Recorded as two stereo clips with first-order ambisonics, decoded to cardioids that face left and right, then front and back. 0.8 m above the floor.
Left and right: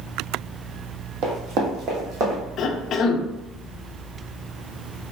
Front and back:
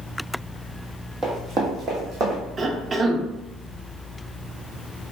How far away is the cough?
About 0.6 m.